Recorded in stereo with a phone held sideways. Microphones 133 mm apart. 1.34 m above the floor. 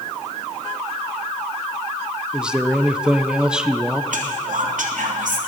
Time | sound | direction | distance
2.3 | a man speaking | 5° right (ahead or behind) | 1.0 m
4.1 | whispering | 75° right (ahead or behind) | 3 m